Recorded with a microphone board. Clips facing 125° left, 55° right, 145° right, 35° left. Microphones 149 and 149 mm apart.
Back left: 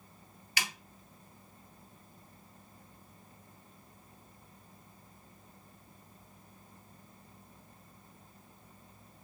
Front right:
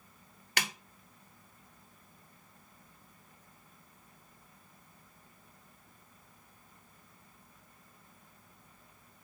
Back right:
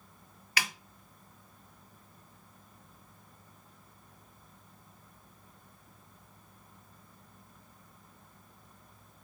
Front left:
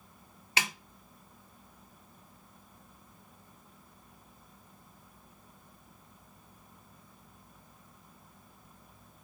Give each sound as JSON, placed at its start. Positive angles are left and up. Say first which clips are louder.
{"t": 0.6, "sound": "a snare drum", "louder": "front right 3 dB, front left 1 dB", "azimuth_deg": -30, "distance_m": 0.5}